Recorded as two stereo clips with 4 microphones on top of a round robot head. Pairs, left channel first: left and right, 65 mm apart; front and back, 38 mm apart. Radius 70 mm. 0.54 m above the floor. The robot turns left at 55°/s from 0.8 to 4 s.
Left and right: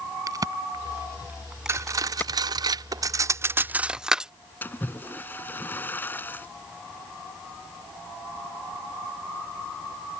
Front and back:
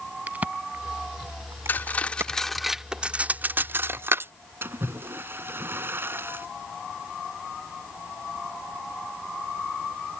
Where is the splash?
150° left.